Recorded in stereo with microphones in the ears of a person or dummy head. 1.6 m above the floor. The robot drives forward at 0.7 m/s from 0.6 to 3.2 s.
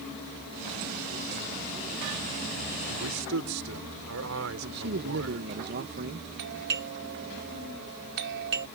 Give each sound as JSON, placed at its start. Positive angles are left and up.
{"t": 2.9, "sound": "a man speaking", "side_deg": -80}
{"t": 4.6, "sound": "a man speaking", "side_deg": -55}
{"t": 6.4, "sound": "a doorbell", "side_deg": -60}